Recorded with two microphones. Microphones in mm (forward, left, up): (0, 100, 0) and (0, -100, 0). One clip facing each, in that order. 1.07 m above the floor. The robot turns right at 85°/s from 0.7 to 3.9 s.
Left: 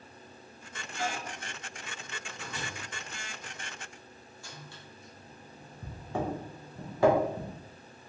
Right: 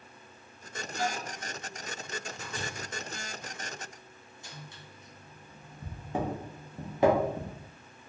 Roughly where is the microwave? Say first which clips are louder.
Right 1 dB; right.